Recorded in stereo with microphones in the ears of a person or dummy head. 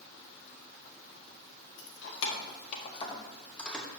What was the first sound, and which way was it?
Keys jangling, 70° left (ahead or behind).